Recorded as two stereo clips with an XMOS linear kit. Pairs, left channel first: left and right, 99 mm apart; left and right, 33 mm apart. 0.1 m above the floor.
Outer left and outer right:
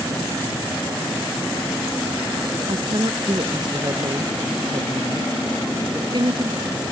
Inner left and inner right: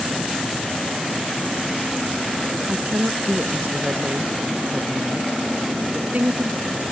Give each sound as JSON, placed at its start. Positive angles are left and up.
{"t": 2.7, "sound": "a woman speaking", "side_deg": -50}